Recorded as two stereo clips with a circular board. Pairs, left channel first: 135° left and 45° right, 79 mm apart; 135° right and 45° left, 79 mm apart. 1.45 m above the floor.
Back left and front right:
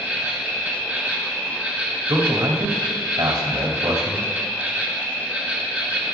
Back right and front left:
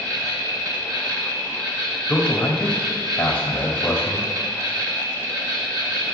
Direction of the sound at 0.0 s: 20° left.